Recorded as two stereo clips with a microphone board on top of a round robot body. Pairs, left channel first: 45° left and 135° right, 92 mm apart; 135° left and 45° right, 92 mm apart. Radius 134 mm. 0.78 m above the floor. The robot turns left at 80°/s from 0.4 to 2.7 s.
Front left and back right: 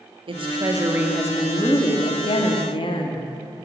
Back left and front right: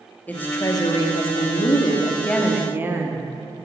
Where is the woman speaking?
155° right, 2.0 m; by 3.2 s 20° left, 2.0 m.